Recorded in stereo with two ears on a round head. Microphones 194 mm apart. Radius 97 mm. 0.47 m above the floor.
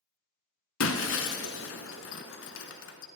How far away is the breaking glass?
About 0.9 m.